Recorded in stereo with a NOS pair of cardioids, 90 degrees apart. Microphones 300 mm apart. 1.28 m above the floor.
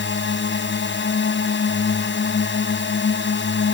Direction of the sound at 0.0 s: 40° left.